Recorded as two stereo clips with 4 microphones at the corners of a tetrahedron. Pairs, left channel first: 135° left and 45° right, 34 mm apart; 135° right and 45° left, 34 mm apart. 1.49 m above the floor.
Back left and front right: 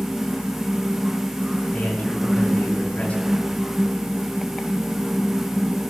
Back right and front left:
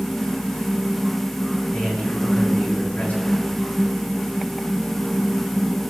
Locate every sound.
1.7 s a man speaking: straight behind, 9 m